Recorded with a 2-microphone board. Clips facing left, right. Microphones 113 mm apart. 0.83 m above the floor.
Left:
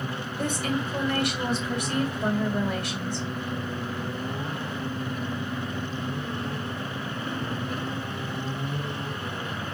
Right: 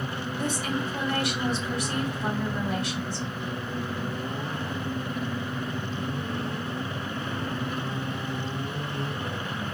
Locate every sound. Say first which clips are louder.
0.4 s a woman speaking: left 2 dB; 55° left (ahead or behind), 1.7 m